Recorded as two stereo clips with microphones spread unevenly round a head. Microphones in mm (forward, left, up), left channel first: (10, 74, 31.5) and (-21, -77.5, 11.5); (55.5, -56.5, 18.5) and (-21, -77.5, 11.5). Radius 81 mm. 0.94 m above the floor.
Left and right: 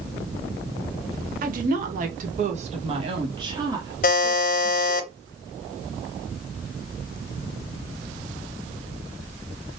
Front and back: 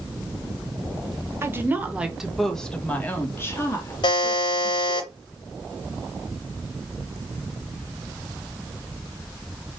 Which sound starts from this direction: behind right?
A woman speaking, at 1.4 s.